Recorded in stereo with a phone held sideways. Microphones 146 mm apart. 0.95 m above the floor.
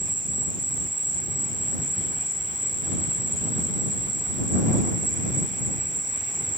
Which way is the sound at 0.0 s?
65° right (ahead or behind).